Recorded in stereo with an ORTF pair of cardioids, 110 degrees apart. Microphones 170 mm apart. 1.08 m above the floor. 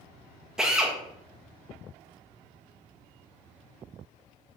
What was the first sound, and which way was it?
A drill, 5° right.